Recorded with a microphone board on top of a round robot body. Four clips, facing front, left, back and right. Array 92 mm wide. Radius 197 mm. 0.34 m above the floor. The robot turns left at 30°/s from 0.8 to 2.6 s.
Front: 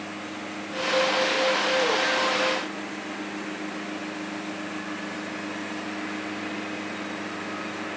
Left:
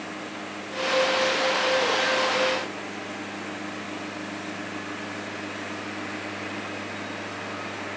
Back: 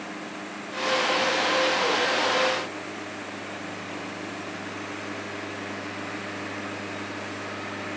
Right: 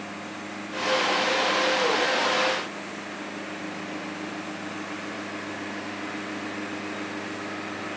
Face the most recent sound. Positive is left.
No sound to turn to.